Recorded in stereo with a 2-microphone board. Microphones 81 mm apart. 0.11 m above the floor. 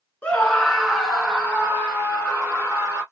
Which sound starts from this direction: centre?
A scream, at 0.2 s.